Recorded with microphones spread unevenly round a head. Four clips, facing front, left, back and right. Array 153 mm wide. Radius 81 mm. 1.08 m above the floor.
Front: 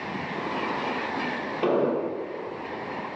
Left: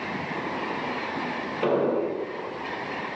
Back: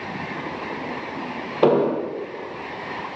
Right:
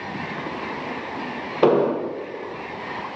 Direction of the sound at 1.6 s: 135° right.